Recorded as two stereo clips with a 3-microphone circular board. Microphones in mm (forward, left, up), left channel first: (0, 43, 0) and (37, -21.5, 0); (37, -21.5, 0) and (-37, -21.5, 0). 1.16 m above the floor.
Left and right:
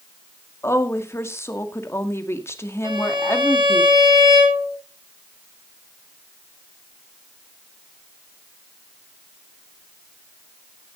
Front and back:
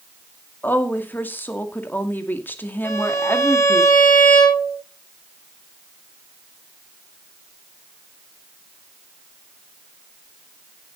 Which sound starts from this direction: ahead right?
A violin, at 2.8 s.